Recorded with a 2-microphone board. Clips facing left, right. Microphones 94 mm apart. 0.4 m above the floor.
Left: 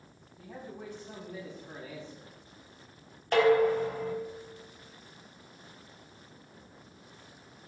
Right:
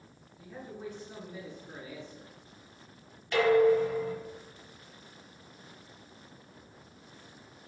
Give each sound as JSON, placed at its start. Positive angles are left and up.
{"t": 0.4, "sound": "a man speaking", "side_deg": 65, "distance_m": 3.5}
{"t": 3.3, "sound": "dishes clattering", "side_deg": 45, "distance_m": 1.6}